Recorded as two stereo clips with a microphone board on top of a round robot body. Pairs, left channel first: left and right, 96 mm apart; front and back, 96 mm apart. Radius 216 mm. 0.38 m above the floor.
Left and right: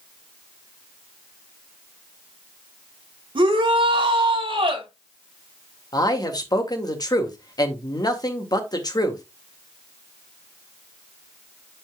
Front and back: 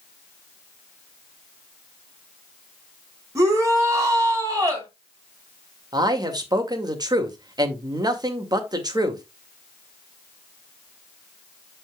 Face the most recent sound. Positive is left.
turn(degrees=135)